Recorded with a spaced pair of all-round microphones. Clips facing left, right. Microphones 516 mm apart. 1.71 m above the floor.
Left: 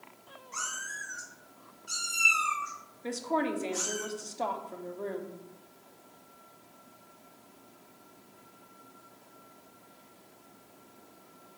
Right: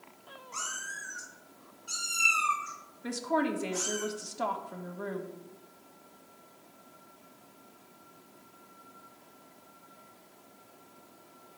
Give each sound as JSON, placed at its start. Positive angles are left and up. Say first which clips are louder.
{"t": 0.5, "sound": "a cat meowing", "louder": "even", "side_deg": 35, "distance_m": 2.0}
{"t": 3.0, "sound": "a woman speaking", "louder": "right 1 dB", "side_deg": -35, "distance_m": 0.6}